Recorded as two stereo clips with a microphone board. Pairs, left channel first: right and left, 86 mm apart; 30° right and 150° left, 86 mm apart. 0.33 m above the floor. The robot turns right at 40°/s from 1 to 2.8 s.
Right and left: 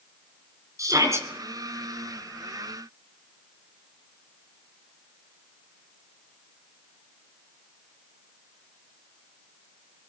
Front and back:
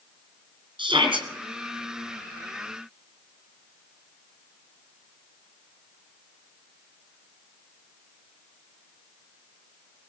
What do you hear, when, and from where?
0.8 s a shout: 140° left, 3.5 m; by 1.3 s 150° left, 3.5 m